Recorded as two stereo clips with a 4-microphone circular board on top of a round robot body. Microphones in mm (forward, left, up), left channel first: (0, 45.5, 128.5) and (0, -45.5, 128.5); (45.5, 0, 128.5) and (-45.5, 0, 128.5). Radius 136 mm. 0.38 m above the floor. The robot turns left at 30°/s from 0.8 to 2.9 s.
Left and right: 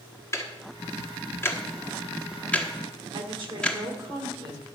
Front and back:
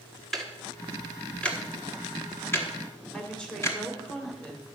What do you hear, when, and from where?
0.3 s ticking: 85° left, 1.5 m; by 3.8 s 20° left, 1.5 m
3.1 s a woman speaking: 85° right, 2 m